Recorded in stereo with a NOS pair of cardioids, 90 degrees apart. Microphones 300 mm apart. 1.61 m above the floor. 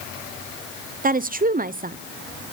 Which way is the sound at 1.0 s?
30° right.